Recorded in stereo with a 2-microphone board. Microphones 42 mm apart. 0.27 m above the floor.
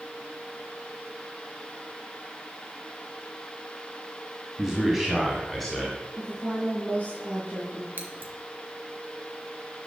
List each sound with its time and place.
4.6 s a man speaking: 15° right (ahead or behind), 1.7 m; by 6.0 s 5° left (ahead or behind), 2.5 m
6.2 s a woman speaking: 45° right (ahead or behind), 5 m
8.0 s scissors: 55° right (ahead or behind), 2 m